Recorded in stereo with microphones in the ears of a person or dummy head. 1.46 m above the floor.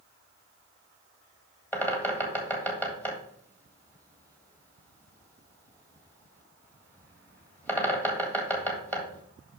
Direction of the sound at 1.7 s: 15° left (ahead or behind).